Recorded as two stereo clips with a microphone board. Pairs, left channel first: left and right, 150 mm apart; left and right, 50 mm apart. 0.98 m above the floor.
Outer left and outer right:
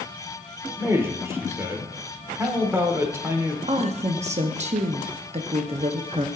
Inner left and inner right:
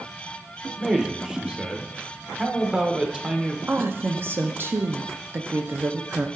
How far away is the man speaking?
About 0.8 m.